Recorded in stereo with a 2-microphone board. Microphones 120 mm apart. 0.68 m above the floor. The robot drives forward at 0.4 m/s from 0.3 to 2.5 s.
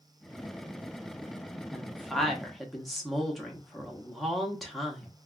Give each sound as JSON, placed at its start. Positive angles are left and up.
{"t": 1.7, "sound": "a woman speaking", "side_deg": 0, "distance_m": 0.7}